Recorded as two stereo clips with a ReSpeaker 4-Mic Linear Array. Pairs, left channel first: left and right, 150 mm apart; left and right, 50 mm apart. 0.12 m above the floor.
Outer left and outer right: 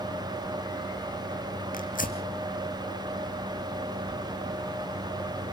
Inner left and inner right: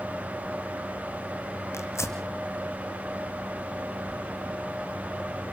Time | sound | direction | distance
1.7 | tearing paper | 65° left (ahead or behind) | 1.8 m